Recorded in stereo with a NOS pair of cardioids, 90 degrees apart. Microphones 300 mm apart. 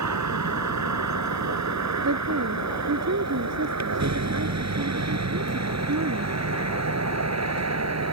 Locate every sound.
0.0 s a vehicle: 70° right; by 8.1 s 60° right
2.0 s a woman speaking: 60° right